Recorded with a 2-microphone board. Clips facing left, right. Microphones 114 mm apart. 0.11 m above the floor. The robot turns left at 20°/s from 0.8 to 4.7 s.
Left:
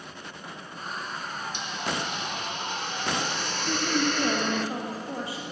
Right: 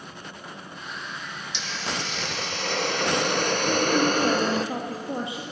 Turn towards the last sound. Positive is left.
turn(degrees=-20)  # may be behind; listen again after turning